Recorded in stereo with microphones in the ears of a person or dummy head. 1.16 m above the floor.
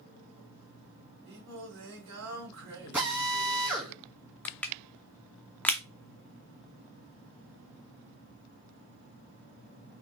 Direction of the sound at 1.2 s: 65° right (ahead or behind).